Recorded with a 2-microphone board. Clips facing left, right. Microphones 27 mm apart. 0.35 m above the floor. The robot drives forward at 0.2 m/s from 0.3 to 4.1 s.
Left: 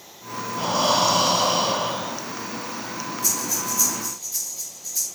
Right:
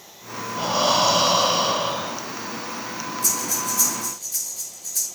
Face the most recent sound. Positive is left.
turn(degrees=-55)  # may be behind; listen again after turning